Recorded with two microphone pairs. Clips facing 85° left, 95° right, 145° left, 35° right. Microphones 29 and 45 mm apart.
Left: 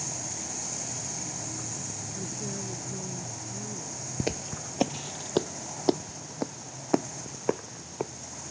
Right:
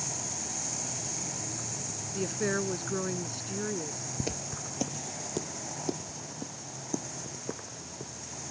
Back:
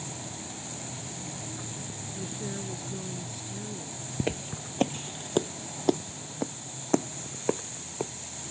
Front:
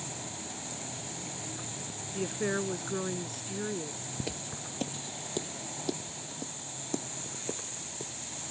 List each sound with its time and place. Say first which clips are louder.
2.1 s a woman speaking: right 9 dB, front 7 dB; 70° right
4.2 s footsteps: left 5 dB, back 8 dB; 135° left; by 8.1 s 110° left